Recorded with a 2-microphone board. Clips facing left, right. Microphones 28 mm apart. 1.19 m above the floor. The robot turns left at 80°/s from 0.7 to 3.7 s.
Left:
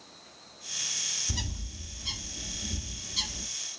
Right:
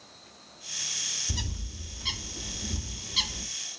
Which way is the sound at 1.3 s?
5° left (ahead or behind).